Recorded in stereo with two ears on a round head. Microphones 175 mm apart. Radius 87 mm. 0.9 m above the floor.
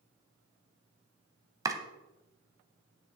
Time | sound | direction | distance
1.6 | chopping | 20° right (ahead or behind) | 1.0 m